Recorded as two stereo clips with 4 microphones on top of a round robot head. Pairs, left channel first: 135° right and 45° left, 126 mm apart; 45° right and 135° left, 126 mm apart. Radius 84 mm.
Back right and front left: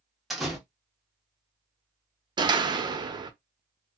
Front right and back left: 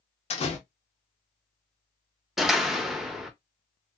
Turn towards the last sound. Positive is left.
turn(degrees=45)